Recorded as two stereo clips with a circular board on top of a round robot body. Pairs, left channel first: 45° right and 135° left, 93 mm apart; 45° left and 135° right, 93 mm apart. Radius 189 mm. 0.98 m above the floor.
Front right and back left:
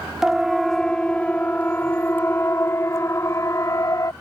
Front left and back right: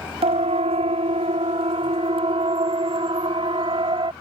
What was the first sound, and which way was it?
A siren, 140° right.